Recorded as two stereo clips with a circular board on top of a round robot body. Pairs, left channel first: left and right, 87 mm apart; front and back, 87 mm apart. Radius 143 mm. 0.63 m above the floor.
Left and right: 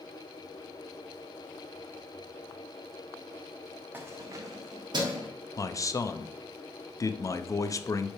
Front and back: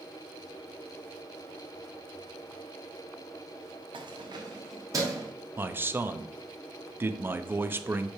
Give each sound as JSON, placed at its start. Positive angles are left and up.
{"t": 3.9, "sound": "keys jangling", "azimuth_deg": -160, "distance_m": 1.0}
{"t": 5.6, "sound": "a man speaking", "azimuth_deg": 125, "distance_m": 0.7}